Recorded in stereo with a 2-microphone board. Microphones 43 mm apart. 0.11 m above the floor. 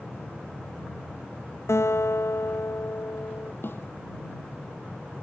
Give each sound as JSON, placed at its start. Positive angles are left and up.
{"t": 1.7, "sound": "a guitar", "side_deg": 80}
{"t": 3.6, "sound": "a snare drum", "side_deg": 55}